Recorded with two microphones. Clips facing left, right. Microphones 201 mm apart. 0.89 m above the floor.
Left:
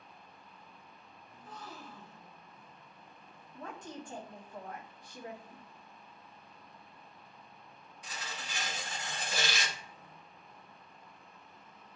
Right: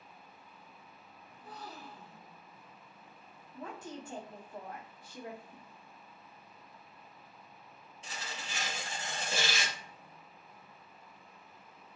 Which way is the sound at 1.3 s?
35° right (ahead or behind).